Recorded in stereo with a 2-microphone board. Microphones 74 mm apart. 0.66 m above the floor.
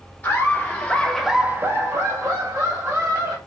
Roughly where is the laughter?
Left.